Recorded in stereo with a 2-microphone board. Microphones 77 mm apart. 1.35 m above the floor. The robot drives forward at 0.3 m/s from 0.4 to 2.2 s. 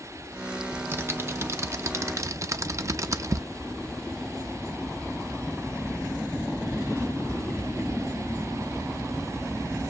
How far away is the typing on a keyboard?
About 0.8 m.